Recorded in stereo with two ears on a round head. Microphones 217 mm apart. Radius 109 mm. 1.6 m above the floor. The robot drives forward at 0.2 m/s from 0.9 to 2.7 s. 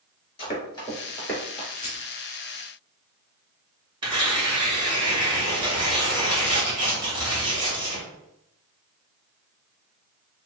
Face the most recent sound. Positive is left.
turn(degrees=-20)  # may be behind; listen again after turning